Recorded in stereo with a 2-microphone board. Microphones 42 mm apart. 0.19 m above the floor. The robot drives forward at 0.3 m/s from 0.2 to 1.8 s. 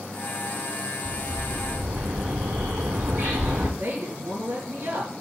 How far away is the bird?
About 1.6 m.